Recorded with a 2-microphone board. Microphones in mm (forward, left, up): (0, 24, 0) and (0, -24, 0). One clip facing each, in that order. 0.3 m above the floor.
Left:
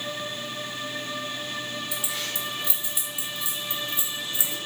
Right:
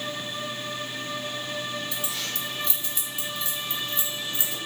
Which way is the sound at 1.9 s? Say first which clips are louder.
Even; 15° left (ahead or behind).